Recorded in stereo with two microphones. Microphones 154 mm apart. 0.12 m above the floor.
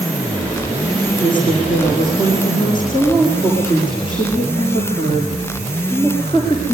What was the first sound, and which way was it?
A woman speaking, 30° left (ahead or behind).